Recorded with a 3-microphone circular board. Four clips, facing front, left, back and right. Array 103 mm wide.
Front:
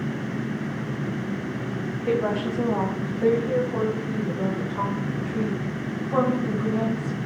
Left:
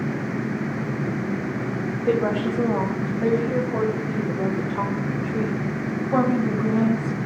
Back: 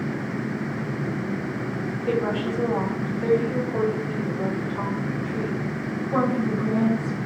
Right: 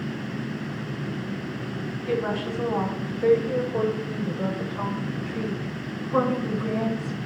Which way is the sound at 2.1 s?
65° left.